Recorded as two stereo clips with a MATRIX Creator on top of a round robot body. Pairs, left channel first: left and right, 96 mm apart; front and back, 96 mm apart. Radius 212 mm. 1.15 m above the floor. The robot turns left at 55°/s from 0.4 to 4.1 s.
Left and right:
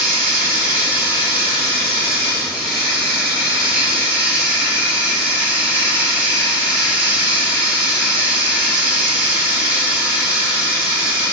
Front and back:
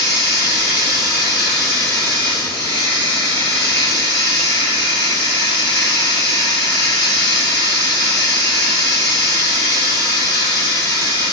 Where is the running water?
160° left, 1.5 m; by 11.3 s 45° right, 1.5 m.